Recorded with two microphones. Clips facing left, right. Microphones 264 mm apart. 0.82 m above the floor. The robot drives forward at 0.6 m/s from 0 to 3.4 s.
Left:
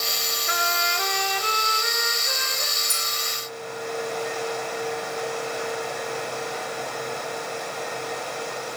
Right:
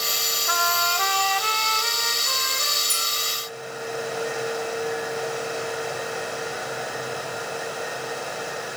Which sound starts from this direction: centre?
A clink, at 2.9 s.